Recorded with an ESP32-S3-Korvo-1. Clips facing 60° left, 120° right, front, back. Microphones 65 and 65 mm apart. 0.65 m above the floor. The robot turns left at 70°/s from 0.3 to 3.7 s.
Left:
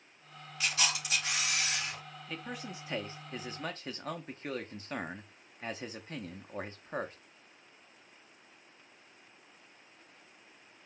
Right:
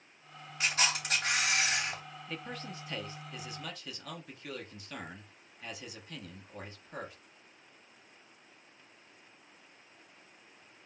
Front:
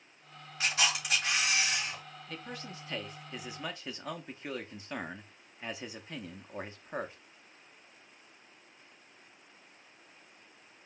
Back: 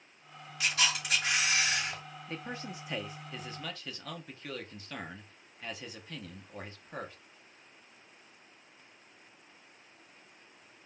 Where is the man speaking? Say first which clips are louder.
Left 1 dB, back 3 dB; 155° left, 0.7 m; by 7.2 s 55° left, 0.7 m.